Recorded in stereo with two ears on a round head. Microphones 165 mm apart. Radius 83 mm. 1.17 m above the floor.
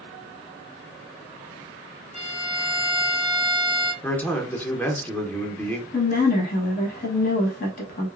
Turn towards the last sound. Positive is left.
turn(degrees=45)  # may be behind; listen again after turning